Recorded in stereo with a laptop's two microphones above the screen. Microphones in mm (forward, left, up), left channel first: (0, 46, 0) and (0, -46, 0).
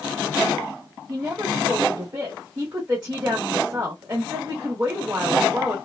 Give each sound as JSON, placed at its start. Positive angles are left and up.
{"t": 1.1, "sound": "a woman speaking", "side_deg": -35, "distance_m": 1.3}